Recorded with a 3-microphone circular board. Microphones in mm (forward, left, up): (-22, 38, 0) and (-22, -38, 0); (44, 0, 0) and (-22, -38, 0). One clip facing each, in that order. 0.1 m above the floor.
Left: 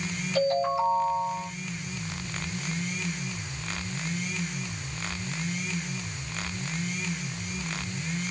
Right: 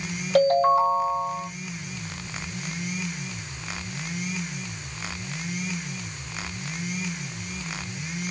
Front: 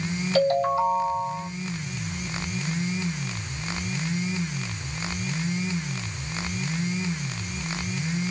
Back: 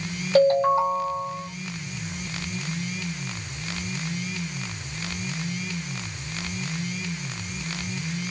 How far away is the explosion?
No explosion in this recording.